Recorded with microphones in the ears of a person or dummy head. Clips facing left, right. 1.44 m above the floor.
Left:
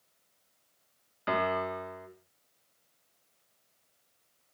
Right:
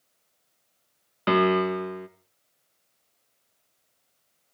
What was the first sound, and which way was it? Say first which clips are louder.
A piano: right 9 dB; 70° right (ahead or behind).